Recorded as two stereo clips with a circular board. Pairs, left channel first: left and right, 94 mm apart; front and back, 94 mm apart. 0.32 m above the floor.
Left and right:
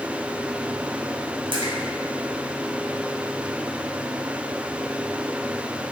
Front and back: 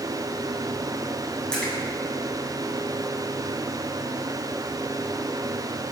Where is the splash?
80° right, 2 m.